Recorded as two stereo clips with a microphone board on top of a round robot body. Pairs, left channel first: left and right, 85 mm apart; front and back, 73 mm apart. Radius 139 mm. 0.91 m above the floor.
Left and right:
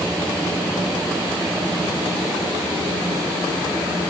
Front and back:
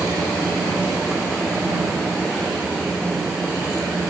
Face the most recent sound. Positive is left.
No sound to turn to.